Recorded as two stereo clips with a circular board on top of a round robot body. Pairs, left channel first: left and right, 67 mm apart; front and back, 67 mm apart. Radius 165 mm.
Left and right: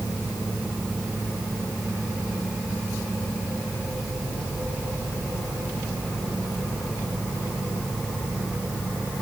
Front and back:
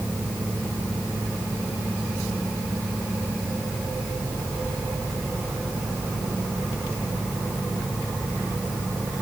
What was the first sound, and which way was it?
Only background noise.